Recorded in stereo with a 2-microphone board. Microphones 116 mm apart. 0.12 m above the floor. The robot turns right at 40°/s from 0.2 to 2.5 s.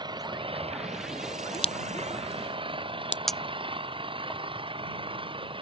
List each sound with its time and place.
0.0 s an engine running: 140° right; by 5.6 s 50° right
1.5 s a crack: 55° left (ahead or behind); by 3.2 s 80° left
3.3 s a clink: 5° left (ahead or behind)